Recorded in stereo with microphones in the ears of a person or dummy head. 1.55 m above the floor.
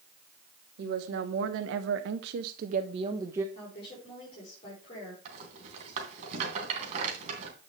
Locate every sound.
0.8 s a woman speaking: 65° right (ahead or behind), 1.5 m; by 3.5 s 15° right (ahead or behind), 0.8 m
3.5 s a woman speaking: 35° left (ahead or behind), 5 m
5.2 s a rattle: 40° right (ahead or behind), 3 m